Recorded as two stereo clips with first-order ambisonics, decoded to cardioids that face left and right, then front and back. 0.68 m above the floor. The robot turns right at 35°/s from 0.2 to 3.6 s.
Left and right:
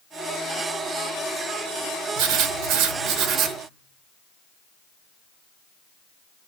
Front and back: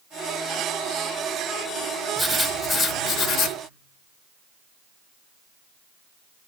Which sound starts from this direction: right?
Writing, at 2.2 s.